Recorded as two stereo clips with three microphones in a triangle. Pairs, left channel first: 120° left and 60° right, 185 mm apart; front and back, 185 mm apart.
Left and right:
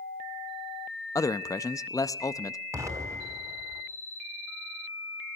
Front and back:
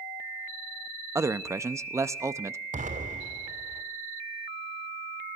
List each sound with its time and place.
1.1 s a man speaking: 145° left, 0.6 m
2.7 s an explosion: 135° right, 2.5 m